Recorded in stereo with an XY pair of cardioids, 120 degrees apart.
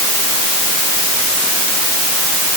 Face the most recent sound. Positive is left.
No sound to turn to.